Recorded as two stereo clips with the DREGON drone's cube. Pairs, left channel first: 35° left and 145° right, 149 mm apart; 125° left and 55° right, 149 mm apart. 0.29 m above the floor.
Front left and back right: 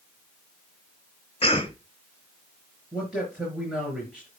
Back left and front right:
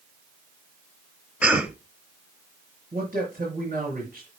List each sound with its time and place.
1.4 s a cough: 20° left, 1.5 m
2.9 s a man speaking: 55° right, 4.5 m